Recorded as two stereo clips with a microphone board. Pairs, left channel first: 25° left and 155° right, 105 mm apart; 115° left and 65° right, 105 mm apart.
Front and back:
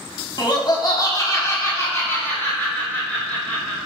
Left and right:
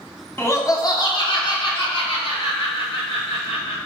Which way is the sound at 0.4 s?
50° left.